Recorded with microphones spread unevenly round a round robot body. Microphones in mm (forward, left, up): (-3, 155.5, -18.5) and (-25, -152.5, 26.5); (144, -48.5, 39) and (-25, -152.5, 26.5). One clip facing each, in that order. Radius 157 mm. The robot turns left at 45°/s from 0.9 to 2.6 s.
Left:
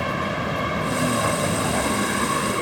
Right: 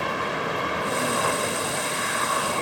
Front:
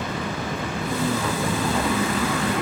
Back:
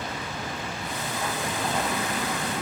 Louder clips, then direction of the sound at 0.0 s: Left 2 dB, front 6 dB; 90° left.